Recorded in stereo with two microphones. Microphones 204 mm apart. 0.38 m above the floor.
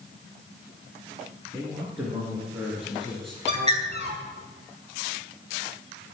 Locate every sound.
1.5 s a man speaking: 15° right (ahead or behind), 5.5 m; by 3.4 s 5° left (ahead or behind), 5.5 m
3.5 s a bird: 30° right (ahead or behind), 3.5 m